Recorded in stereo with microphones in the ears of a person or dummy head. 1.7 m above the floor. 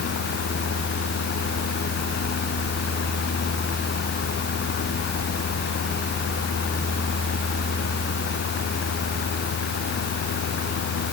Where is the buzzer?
I don't hear a buzzer.